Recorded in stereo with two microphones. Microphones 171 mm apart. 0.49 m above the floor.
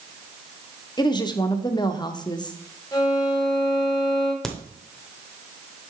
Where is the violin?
20° left (ahead or behind), 1.3 m.